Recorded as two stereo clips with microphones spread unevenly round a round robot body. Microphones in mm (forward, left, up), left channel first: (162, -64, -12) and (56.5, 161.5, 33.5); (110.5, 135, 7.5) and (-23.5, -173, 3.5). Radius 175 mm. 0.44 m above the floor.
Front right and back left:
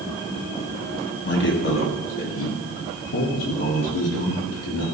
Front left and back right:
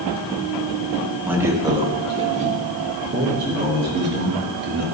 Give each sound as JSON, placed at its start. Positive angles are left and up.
{"t": 1.2, "sound": "a man speaking", "azimuth_deg": -30, "distance_m": 2.5}